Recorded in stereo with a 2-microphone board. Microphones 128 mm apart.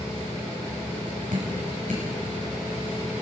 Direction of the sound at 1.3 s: 85° right.